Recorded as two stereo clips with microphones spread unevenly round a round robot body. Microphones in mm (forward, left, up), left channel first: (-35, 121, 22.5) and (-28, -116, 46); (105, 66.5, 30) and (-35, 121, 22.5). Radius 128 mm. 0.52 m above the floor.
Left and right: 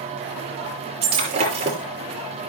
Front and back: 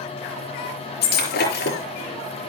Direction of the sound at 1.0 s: 20° right.